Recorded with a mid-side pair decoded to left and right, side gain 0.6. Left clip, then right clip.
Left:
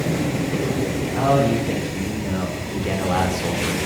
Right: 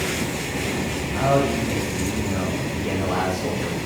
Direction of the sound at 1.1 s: 65° left.